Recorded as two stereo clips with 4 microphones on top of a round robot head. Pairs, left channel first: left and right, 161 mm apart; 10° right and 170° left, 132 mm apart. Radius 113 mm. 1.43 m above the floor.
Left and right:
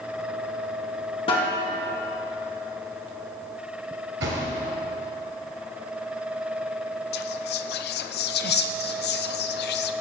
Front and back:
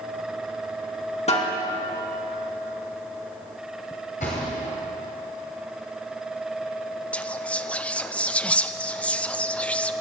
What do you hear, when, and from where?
1.3 s a snare drum: 25° left, 2.5 m
4.2 s a thud: 65° right, 2.5 m
7.1 s whispering: 70° left, 0.9 m